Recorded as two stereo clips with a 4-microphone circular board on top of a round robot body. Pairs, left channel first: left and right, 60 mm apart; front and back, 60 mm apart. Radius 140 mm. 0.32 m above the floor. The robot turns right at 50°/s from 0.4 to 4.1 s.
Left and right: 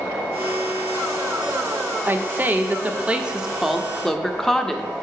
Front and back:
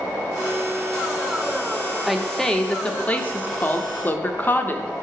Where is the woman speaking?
90° right, 0.9 m; by 4.9 s 15° left, 0.9 m.